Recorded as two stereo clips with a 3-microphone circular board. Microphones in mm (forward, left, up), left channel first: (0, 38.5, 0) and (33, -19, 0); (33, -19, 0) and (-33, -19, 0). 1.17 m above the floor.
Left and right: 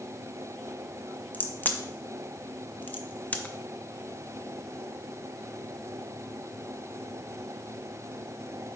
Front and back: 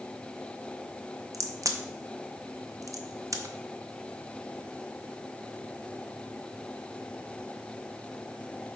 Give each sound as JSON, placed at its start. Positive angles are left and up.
{"t": 1.3, "sound": "a crack", "azimuth_deg": 180, "distance_m": 0.8}